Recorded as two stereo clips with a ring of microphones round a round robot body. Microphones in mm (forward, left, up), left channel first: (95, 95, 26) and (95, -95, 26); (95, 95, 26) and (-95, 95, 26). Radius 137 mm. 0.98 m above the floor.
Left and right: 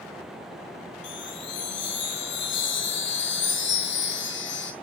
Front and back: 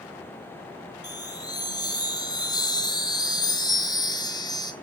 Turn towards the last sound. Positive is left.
turn(degrees=70)